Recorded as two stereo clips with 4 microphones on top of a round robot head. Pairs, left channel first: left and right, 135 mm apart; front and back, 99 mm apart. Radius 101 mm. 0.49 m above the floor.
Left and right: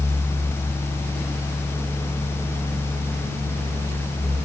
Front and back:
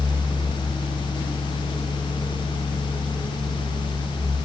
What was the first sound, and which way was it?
Only background noise.